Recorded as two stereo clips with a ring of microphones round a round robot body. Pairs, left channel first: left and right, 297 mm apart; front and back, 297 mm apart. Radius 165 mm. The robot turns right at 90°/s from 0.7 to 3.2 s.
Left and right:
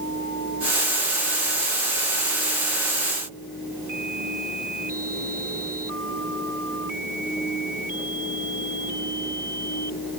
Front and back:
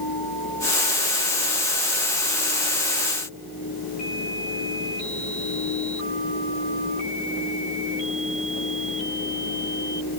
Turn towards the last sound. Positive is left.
No sound to turn to.